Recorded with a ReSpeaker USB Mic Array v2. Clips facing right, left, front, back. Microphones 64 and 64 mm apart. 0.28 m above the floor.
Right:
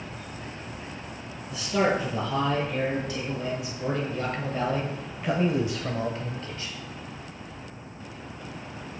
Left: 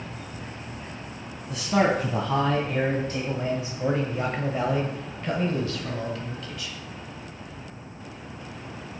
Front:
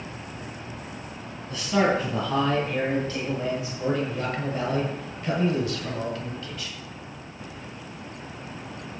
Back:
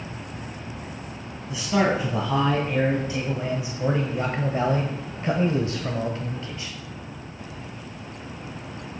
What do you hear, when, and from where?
1.5 s a man speaking: 100° left, 2.5 m; by 6.8 s 125° right, 1.7 m